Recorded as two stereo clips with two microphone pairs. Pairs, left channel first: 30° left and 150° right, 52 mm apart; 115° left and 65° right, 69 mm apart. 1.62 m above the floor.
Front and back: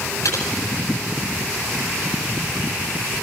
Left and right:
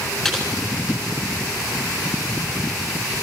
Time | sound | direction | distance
0.2 | typing on a keyboard | 30° left | 9.5 m